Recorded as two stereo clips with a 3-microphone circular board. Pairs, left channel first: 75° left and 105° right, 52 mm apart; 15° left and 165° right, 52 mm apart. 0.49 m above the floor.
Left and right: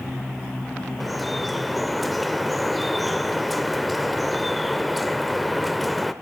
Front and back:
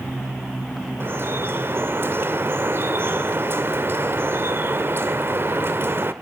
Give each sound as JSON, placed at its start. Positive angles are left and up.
{"t": 1.0, "sound": "dripping", "azimuth_deg": 165, "distance_m": 1.6}